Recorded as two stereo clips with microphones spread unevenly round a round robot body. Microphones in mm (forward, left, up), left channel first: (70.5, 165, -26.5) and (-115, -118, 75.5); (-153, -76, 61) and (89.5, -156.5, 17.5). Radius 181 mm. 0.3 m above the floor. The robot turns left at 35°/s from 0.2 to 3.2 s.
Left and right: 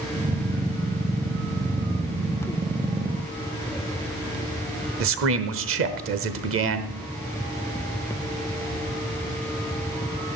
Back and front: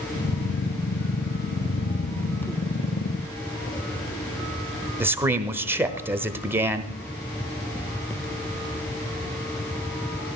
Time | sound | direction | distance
5.0 | a man speaking | 75° right | 1.2 m